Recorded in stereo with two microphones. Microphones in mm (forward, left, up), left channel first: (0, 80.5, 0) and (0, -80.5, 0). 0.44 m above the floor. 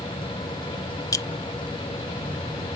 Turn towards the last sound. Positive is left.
turn(degrees=20)  # may be behind; listen again after turning